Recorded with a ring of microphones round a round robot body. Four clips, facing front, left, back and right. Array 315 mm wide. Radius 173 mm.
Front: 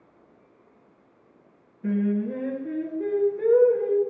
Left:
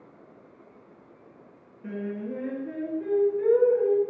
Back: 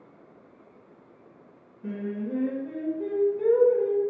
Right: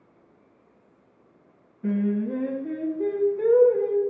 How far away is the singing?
About 3 m.